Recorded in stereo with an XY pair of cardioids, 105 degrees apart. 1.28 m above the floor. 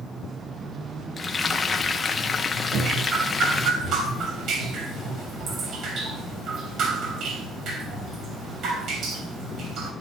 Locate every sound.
1.2 s frying: 20° left, 1.1 m
2.7 s dripping: 70° right, 3 m